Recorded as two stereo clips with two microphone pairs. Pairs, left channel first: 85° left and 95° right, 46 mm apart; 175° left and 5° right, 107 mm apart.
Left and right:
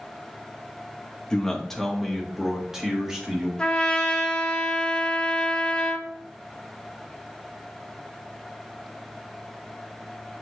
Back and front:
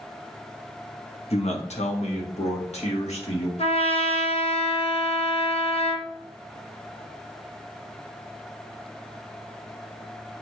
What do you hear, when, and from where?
1.3 s a man speaking: 155° left, 1.1 m; by 3.5 s 170° right, 2 m
3.6 s a trumpet: 155° left, 0.9 m